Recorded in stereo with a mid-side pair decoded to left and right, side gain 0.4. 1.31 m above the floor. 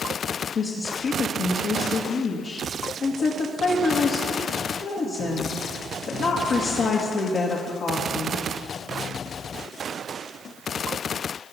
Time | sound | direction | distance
0.6 | a woman speaking | 65° left | 2.5 m